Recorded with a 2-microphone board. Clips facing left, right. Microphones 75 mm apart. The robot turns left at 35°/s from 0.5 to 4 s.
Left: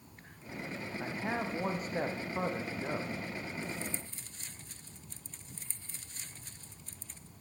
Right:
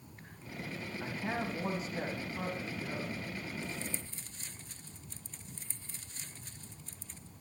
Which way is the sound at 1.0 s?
165° left.